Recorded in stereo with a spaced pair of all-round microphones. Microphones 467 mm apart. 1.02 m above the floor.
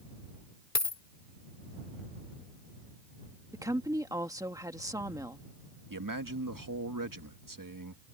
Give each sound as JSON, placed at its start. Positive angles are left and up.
{"t": 0.8, "sound": "a dropped coin", "side_deg": 35}
{"t": 3.5, "sound": "a woman speaking", "side_deg": -5}
{"t": 5.9, "sound": "a man speaking", "side_deg": -45}